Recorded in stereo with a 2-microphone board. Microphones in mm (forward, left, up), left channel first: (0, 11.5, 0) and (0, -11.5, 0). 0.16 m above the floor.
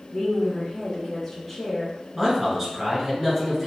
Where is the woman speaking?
20° left (ahead or behind), 1.1 m; by 1.9 s centre (ahead or behind), 1.1 m.